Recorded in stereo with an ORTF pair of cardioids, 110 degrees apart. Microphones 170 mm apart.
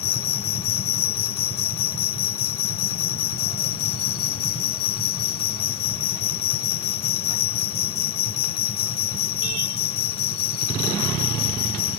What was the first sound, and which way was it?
An insect, 65° left.